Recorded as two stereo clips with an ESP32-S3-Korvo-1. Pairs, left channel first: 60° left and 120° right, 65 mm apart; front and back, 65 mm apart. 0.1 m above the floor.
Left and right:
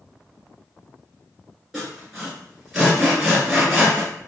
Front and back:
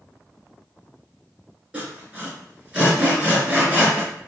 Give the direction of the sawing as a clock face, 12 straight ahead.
6 o'clock.